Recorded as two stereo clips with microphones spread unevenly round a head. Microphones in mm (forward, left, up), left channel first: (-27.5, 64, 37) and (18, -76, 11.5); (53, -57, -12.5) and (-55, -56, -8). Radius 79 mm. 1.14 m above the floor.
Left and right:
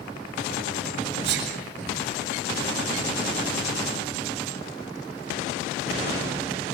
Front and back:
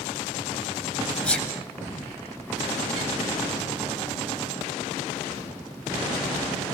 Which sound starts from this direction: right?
A sneeze, at 1.2 s.